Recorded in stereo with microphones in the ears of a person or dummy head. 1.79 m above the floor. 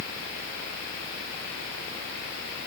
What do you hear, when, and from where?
Only background noise.